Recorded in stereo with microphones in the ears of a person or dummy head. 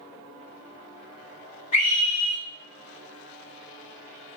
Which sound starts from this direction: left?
A scream, at 1.7 s.